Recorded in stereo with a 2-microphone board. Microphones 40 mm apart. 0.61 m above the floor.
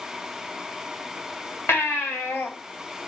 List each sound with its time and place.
1.7 s a baby crying: 80° left, 2 m